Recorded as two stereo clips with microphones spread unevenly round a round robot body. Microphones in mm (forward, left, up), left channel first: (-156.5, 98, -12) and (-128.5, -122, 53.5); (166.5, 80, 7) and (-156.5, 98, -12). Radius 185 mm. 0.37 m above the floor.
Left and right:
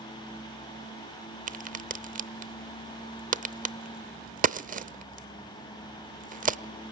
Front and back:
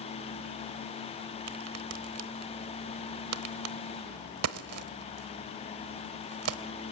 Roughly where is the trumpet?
I don't hear a trumpet.